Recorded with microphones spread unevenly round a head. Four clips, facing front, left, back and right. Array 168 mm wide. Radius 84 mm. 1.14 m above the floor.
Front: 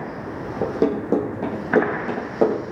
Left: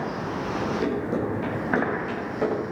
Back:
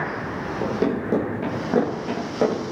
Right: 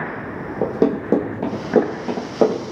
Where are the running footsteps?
80° right, 3 m.